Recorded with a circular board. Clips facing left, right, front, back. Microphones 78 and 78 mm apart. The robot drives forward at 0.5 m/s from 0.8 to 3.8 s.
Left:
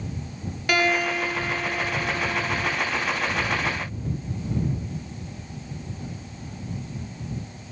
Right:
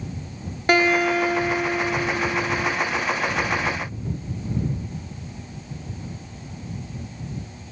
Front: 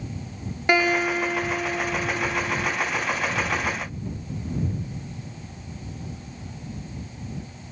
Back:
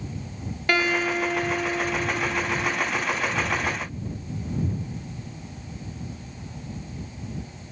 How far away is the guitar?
About 0.8 m.